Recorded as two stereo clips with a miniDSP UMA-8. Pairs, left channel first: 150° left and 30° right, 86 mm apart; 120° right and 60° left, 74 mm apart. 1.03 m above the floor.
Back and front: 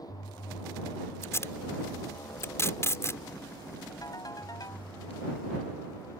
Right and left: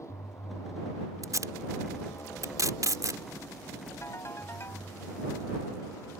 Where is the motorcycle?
165° right.